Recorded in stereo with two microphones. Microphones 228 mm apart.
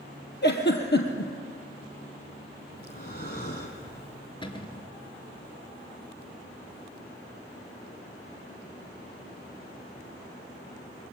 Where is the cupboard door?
20° left (ahead or behind), 2.5 m.